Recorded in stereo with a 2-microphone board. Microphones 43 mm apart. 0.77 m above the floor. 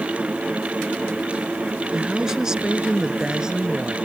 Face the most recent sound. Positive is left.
turn(degrees=-15)  # may be behind; listen again after turning